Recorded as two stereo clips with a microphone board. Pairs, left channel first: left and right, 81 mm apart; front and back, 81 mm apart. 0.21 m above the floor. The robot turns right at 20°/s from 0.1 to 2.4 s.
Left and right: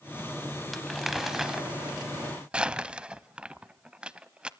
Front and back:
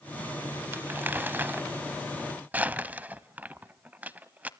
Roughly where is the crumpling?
Behind.